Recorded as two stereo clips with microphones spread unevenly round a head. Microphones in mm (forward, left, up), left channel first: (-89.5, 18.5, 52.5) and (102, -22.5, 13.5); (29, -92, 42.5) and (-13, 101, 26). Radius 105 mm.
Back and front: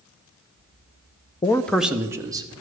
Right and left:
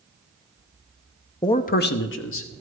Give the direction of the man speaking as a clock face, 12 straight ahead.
4 o'clock.